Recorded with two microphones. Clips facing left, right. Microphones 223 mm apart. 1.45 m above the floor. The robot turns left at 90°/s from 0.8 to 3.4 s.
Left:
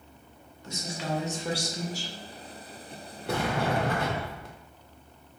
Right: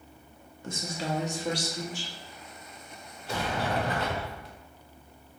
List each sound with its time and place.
0.6 s a woman speaking: 120° right, 0.7 m; by 2.1 s 120° left, 0.7 m
3.3 s a sliding door: 60° left (ahead or behind), 0.6 m; by 4.5 s 50° left (ahead or behind), 0.6 m